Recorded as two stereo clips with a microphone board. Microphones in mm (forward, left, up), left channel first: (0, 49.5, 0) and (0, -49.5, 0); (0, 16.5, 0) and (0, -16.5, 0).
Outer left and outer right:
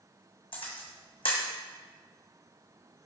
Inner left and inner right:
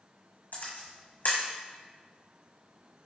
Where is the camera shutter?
75° left (ahead or behind), 1.5 m.